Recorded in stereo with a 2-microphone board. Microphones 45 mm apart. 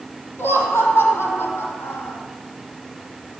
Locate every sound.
0.4 s laughter: 70° left (ahead or behind), 4.5 m